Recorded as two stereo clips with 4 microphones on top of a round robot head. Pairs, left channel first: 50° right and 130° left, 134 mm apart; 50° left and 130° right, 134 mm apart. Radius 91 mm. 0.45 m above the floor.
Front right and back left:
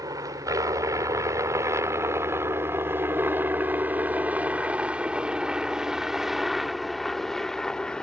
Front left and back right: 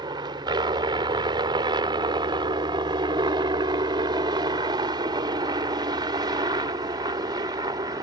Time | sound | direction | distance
0.0 | a helicopter | 175° right | ?